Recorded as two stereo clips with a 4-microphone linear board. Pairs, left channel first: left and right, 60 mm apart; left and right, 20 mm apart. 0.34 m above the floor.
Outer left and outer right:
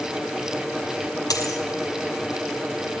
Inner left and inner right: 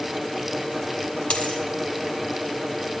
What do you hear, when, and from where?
1.3 s a dropped coin: 85° left, 4.5 m